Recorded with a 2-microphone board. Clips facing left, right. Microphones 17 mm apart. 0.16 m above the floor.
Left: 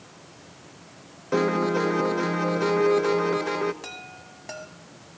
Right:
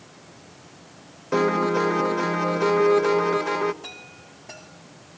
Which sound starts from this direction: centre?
A piano, at 1.3 s.